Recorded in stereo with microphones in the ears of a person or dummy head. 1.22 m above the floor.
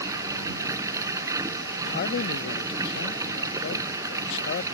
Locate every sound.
0.0 s running water: 15° right (ahead or behind)
1.8 s a man speaking: 55° left (ahead or behind)